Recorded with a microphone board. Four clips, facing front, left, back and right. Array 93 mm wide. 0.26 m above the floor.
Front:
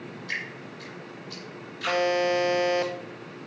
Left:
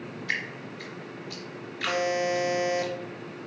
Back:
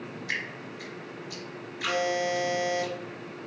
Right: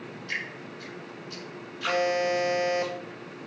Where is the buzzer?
5° left, 0.6 m.